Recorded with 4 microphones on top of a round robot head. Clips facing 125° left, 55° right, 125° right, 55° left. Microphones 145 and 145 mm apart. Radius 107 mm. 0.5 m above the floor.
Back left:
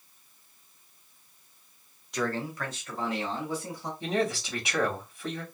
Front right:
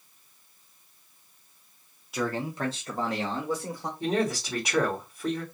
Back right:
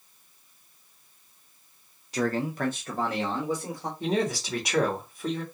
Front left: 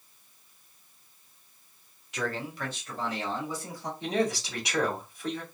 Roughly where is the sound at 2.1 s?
Behind right.